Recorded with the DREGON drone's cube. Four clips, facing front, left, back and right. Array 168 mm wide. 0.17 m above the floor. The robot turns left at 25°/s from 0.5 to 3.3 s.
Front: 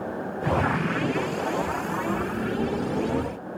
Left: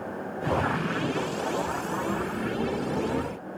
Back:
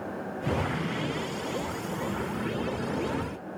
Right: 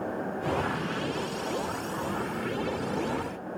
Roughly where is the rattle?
No rattle in this recording.